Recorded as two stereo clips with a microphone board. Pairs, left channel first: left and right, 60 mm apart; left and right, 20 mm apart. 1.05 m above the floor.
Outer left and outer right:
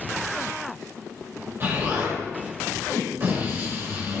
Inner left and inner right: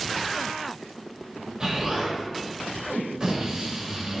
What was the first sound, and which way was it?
An explosion, 40° right (ahead or behind).